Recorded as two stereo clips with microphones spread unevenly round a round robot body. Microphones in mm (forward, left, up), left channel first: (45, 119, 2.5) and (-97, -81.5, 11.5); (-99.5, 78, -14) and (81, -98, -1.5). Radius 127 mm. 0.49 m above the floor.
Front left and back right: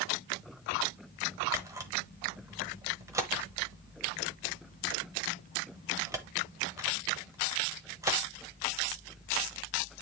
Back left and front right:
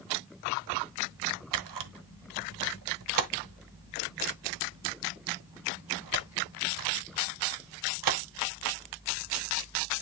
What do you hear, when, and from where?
1.5 s a camera shutter: 45° right, 1.0 m